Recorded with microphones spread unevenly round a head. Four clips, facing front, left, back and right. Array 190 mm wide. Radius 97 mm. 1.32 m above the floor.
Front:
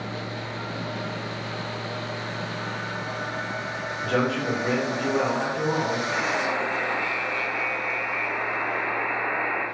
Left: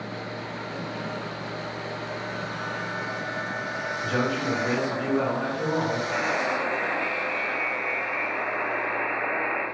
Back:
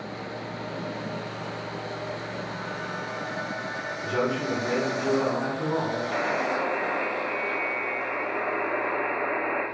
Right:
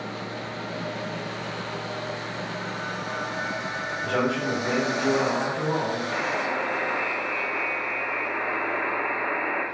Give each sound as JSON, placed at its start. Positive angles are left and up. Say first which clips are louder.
{"t": 4.0, "sound": "a man speaking", "louder": "right 1 dB, front 2 dB", "azimuth_deg": -25, "distance_m": 1.5}
{"t": 6.1, "sound": "a buzzer", "louder": "left 1 dB, even", "azimuth_deg": -170, "distance_m": 1.0}